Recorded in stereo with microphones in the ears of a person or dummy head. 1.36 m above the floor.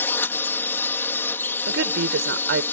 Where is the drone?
10° left (ahead or behind).